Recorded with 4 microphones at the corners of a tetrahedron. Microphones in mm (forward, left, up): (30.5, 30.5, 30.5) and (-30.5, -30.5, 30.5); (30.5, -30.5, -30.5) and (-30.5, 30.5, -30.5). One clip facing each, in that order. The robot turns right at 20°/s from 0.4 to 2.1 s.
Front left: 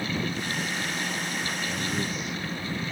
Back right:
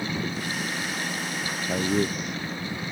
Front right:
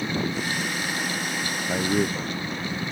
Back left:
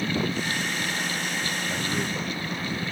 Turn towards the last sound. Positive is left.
turn(degrees=-95)